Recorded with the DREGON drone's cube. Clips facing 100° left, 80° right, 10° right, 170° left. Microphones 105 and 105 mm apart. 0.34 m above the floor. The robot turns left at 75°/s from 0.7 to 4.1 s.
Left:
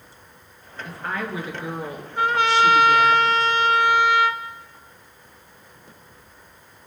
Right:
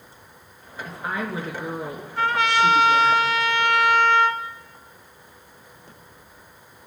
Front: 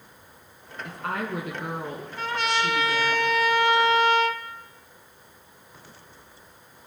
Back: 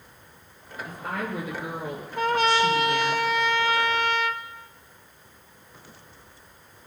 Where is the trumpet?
165° left, 0.8 m; by 4.4 s 20° left, 0.8 m.